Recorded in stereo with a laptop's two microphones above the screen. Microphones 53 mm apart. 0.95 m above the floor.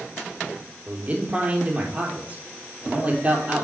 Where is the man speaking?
35° right (ahead or behind), 3.5 m.